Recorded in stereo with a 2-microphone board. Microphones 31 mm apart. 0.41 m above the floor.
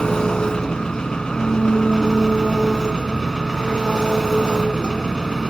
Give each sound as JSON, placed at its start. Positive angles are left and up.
{"t": 0.0, "sound": "an engine running", "side_deg": 25, "distance_m": 2.5}